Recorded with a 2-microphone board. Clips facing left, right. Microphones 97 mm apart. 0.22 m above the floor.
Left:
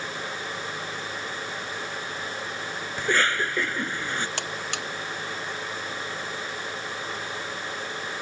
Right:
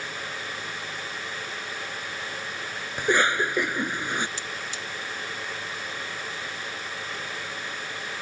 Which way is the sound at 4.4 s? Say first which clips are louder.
Left 3 dB; 70° left (ahead or behind).